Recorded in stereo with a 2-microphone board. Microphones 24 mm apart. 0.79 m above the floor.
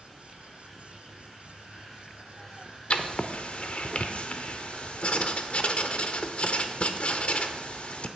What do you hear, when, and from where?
2.9 s writing: 50° left (ahead or behind), 0.6 m